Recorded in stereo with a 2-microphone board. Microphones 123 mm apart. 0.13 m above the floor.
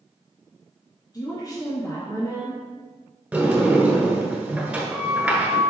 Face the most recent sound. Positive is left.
turn(degrees=-10)  # may be behind; listen again after turning